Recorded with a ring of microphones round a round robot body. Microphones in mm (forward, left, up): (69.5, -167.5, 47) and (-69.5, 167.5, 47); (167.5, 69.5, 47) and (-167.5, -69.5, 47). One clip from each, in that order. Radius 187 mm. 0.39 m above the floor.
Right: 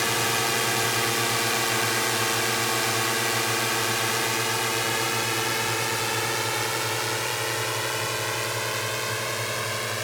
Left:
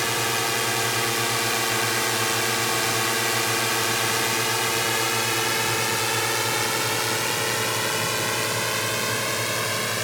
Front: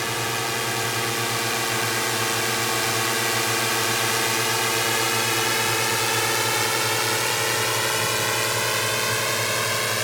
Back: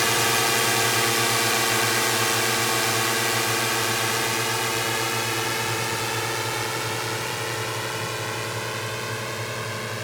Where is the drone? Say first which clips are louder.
Even, back 4 dB; 165° right; by 10.0 s 45° left.